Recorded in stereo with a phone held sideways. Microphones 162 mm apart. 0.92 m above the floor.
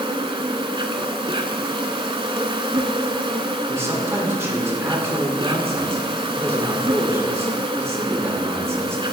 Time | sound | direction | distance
0.0 | an insect | 35° right (ahead or behind) | 1.0 m
3.7 | a man speaking | 20° right (ahead or behind) | 3 m